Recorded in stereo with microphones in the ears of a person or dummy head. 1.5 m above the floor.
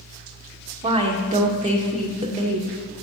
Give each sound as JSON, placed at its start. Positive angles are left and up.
{"t": 0.8, "sound": "a woman speaking", "side_deg": -30, "distance_m": 0.9}